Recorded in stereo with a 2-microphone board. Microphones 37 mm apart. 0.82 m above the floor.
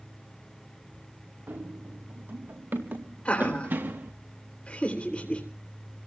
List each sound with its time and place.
1.5 s running footsteps: 75° right (ahead or behind), 5 m; by 4.1 s 60° right (ahead or behind), 4.5 m
3.2 s laughter: 35° left (ahead or behind), 3.5 m